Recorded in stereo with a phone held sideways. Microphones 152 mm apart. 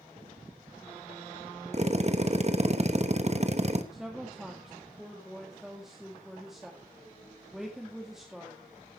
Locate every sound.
1.7 s a drill: 45° right (ahead or behind), 1.1 m
3.9 s a woman speaking: centre (ahead or behind), 1.9 m